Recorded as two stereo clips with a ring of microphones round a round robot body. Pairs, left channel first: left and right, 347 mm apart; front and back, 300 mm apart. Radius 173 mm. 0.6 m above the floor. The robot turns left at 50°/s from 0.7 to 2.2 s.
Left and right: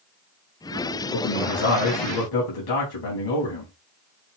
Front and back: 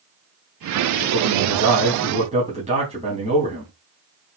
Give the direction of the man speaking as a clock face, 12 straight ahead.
7 o'clock.